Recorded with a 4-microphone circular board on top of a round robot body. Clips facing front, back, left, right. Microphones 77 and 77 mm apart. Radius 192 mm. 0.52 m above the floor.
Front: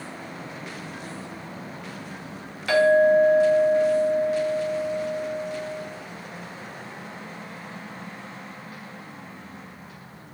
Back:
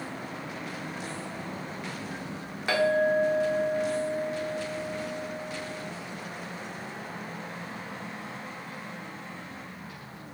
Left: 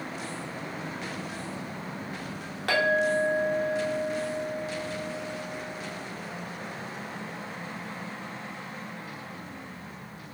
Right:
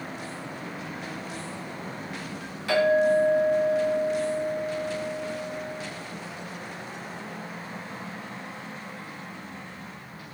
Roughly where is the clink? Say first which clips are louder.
Front 7 dB, right 4 dB; behind left.